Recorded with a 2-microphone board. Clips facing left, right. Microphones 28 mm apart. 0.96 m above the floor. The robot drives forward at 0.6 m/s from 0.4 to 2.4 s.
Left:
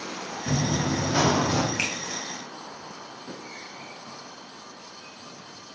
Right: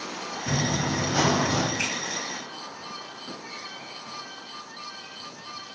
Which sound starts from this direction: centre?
Running footsteps, at 0.5 s.